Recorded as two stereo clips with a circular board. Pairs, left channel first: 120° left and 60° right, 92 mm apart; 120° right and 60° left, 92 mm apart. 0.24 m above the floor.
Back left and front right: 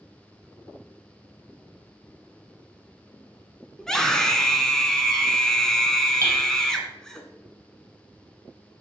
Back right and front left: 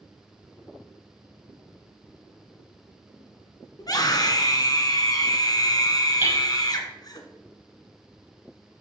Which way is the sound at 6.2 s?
10° right.